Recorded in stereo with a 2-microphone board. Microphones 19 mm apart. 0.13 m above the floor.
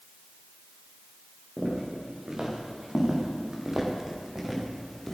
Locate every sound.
1.6 s footsteps: 40° right (ahead or behind), 6 m; by 5.2 s 10° left (ahead or behind), 4 m